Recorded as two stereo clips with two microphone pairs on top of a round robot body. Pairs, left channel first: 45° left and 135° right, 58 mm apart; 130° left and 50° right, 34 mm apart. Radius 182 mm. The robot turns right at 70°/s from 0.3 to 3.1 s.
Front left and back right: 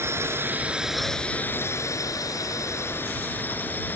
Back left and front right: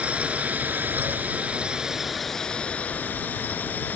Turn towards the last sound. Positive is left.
turn(degrees=105)